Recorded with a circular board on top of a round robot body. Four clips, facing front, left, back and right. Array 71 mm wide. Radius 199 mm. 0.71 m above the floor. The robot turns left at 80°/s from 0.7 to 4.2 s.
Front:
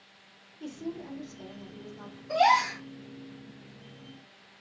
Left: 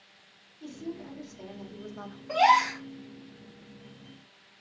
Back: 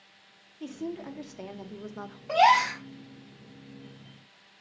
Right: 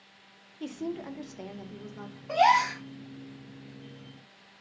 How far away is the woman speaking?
About 0.7 m.